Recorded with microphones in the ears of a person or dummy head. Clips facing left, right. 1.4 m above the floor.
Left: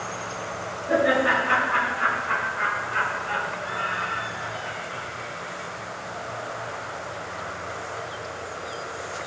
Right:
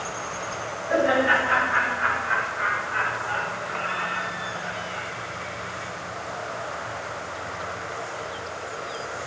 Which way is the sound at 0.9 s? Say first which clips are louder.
Even; 65° left (ahead or behind).